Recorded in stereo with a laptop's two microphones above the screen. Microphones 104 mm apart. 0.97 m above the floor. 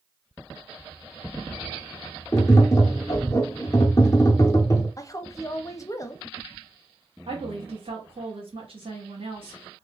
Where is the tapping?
30° left (ahead or behind), 0.7 m.